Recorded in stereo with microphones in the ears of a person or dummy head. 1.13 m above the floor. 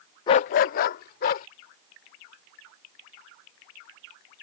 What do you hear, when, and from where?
0.3 s a dog barking: 20° left (ahead or behind); by 1.5 s 50° left (ahead or behind)